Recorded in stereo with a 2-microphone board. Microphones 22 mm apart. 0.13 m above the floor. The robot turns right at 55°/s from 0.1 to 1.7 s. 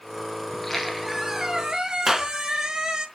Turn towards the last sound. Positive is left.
turn(degrees=-15)  # may be behind; listen again after turning